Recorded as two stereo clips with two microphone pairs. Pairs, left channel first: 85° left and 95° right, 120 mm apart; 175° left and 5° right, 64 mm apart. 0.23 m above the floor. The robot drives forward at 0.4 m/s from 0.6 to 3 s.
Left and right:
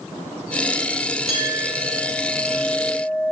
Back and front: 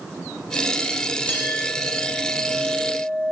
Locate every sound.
1.3 s a clink: 115° left, 4.5 m; by 3.3 s 125° left, 5 m